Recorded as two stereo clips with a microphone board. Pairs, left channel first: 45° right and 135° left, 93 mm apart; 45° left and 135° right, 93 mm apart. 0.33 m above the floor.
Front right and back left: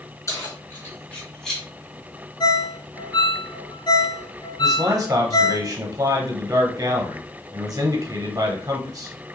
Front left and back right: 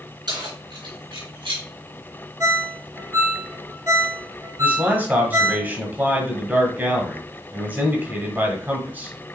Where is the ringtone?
80° right, 1.0 m.